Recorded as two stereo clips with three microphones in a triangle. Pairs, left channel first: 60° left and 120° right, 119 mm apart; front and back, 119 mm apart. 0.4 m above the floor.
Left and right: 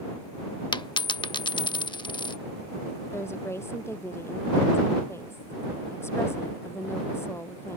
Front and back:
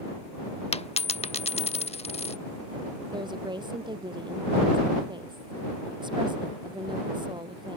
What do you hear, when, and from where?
0.7 s a dropped coin: 15° left
3.1 s a woman speaking: 130° left